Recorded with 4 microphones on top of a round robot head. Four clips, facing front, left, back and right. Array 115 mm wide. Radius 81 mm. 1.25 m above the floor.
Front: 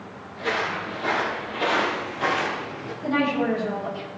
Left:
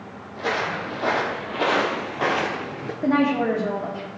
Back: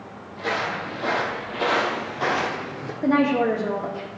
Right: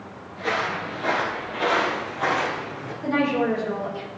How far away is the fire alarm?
I don't hear a fire alarm.